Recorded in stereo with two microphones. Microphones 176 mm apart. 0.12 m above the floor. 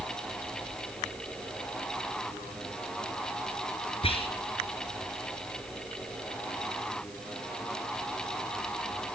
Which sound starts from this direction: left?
Whispering, at 4.0 s.